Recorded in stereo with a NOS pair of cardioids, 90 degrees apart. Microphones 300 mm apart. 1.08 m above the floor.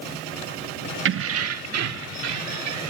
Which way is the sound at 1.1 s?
45° right.